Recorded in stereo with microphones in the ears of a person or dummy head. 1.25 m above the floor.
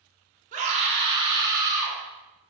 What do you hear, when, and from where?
0.5 s a scream: 40° right (ahead or behind), 0.8 m; by 2.0 s 15° right (ahead or behind), 1.5 m